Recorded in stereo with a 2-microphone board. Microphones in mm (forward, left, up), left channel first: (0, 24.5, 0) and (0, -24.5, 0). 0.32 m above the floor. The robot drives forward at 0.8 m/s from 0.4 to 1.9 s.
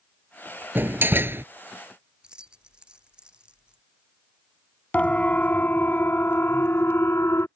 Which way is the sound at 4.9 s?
30° left (ahead or behind).